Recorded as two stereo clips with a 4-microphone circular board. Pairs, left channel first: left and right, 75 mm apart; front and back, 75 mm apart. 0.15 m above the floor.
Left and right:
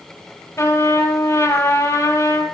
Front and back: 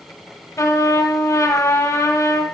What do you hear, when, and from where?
0.6 s a trumpet: 45° left, 4 m